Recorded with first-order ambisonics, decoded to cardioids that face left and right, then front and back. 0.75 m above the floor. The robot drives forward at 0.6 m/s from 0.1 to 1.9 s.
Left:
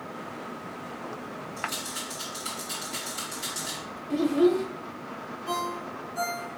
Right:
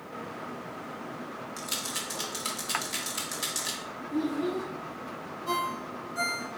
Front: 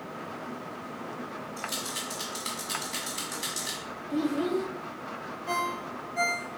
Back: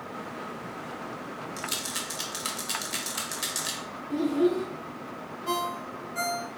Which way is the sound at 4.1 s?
90° left.